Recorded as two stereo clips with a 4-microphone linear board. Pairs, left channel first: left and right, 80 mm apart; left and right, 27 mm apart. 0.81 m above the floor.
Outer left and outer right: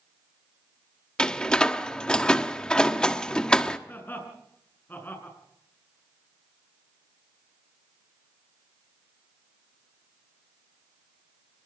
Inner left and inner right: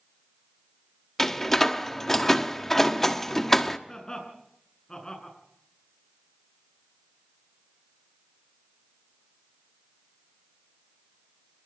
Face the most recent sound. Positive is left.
turn(degrees=25)  # may be behind; listen again after turning